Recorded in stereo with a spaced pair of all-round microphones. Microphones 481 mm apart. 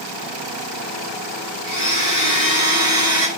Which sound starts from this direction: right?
A blender, at 1.6 s.